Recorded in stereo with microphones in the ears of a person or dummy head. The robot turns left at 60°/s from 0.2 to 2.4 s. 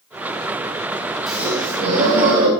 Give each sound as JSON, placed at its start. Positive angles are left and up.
{"t": 1.3, "sound": "a gasp", "azimuth_deg": -5, "distance_m": 3.5}